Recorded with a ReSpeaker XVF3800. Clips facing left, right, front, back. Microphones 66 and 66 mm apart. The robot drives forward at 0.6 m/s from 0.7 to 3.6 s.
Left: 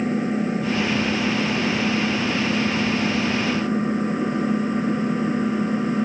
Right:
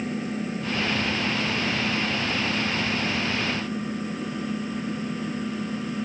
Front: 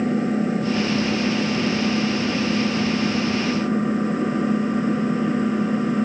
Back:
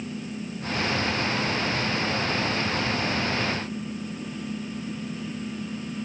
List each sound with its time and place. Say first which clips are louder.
0.0 s an engine running: left 7 dB, front 13 dB; 30° left; by 6.1 s 35° left